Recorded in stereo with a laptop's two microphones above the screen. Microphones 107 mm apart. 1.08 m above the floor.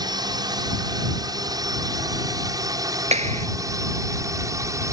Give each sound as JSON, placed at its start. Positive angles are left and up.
{"t": 0.0, "sound": "a drone", "side_deg": -40}
{"t": 3.1, "sound": "a clap", "side_deg": -80}